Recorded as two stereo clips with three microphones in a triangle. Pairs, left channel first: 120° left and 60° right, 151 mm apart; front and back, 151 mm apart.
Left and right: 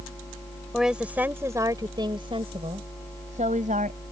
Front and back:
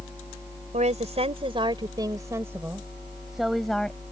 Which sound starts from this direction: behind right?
A woman speaking, at 0.7 s.